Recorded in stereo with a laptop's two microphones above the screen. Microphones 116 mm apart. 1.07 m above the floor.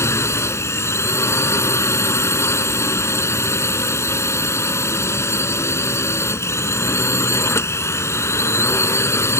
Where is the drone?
25° left (ahead or behind).